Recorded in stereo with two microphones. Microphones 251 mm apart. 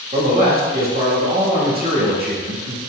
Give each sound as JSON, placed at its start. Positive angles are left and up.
{"t": 0.1, "sound": "a man speaking", "side_deg": -40, "distance_m": 1.1}